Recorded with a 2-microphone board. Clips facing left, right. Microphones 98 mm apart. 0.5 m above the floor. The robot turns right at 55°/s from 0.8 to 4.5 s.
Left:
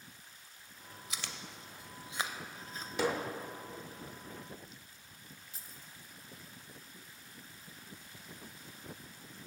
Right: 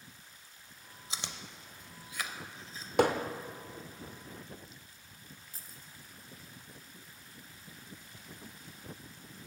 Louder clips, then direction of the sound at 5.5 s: Even; 45° right (ahead or behind).